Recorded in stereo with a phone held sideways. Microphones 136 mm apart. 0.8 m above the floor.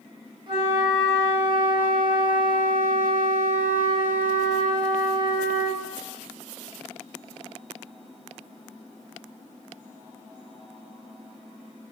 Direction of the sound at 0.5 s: 35° right (ahead or behind).